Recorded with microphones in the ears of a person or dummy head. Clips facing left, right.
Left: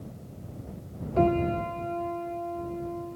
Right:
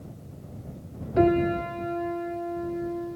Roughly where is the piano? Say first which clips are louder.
Right 3 dB; centre.